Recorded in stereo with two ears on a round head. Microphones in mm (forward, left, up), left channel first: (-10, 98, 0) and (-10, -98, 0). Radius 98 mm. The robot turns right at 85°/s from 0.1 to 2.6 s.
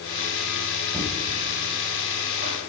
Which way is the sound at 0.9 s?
15° right (ahead or behind).